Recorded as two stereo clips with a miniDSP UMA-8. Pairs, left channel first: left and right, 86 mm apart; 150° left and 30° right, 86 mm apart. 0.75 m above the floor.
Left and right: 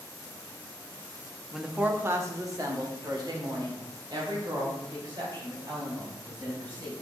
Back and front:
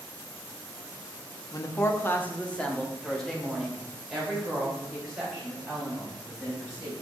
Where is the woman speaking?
Straight behind, 0.7 m; by 7.0 s 110° right, 4.5 m.